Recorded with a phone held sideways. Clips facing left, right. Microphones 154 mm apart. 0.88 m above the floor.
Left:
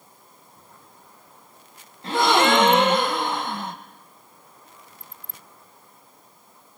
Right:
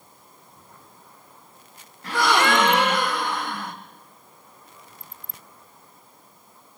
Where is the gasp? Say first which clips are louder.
Left 2 dB; 25° left (ahead or behind), 1.6 m.